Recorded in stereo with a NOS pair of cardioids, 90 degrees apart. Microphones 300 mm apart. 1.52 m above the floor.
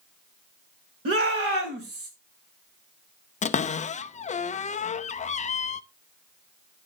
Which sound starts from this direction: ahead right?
A shout, at 1.1 s.